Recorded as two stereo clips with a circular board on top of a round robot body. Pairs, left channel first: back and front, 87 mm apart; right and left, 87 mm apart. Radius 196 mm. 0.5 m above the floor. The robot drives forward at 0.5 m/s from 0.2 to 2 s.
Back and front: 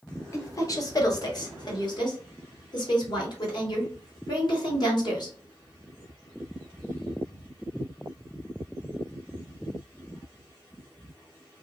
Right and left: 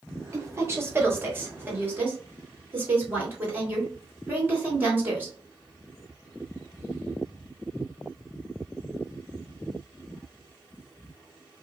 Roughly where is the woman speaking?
Behind left.